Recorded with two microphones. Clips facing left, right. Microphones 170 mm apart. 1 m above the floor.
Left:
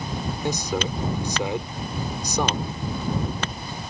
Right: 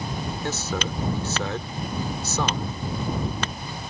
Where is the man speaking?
15° left (ahead or behind).